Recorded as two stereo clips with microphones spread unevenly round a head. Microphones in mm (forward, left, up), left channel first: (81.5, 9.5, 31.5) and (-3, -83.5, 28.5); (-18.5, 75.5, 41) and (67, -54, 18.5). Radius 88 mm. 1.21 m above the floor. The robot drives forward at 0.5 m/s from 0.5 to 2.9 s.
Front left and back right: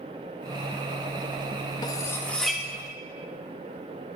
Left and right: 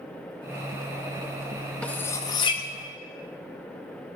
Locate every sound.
1.8 s cutlery clinking: 60° left, 0.5 m; by 2.6 s 145° left, 0.6 m